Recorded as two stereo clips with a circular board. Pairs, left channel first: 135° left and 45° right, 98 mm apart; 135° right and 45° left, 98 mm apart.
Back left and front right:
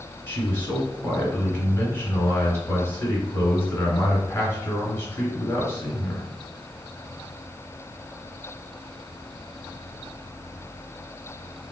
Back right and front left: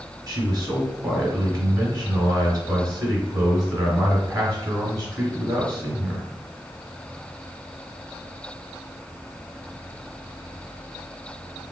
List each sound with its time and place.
0.3 s a man speaking: 70° left, 1.3 m